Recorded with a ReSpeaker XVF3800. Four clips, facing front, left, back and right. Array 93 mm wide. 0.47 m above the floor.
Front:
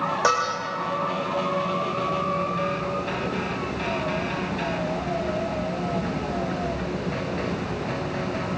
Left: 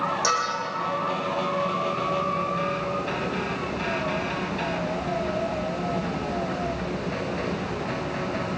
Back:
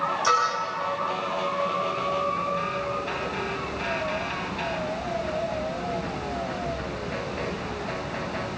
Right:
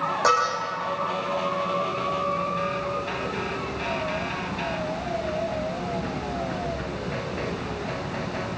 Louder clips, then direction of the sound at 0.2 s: Right 7 dB, even; 35° right.